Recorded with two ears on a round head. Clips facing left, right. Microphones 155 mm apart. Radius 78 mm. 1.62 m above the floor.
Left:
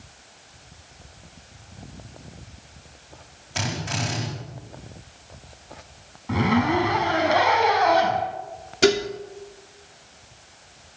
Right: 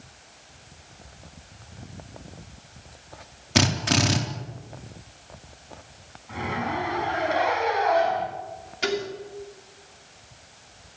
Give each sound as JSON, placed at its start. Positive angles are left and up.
{"t": 3.5, "sound": "a drill", "side_deg": -70, "distance_m": 4.0}
{"t": 6.3, "sound": "a zipper", "side_deg": 70, "distance_m": 4.5}
{"t": 8.8, "sound": "dishes clattering", "side_deg": 60, "distance_m": 2.5}